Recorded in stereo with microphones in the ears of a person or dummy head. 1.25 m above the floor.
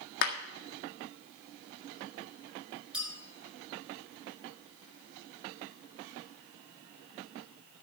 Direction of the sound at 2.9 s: 5° right (ahead or behind).